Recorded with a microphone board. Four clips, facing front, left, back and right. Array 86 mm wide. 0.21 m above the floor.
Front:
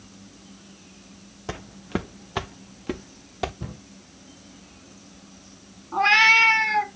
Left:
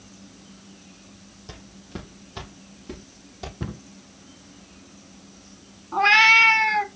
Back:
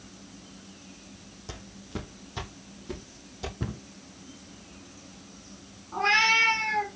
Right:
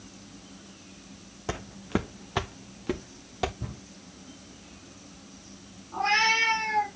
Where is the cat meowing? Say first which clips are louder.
Left 7 dB, front 6 dB; 60° left, 1.1 m.